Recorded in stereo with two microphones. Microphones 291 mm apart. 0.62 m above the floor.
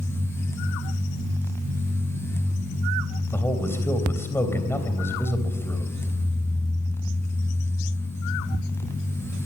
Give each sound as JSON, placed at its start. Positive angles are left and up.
{"t": 3.3, "sound": "a man speaking", "side_deg": 10, "distance_m": 3.0}